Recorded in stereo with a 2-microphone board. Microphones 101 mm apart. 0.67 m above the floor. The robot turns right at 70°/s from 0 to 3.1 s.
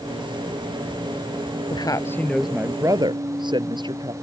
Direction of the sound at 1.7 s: 130° left.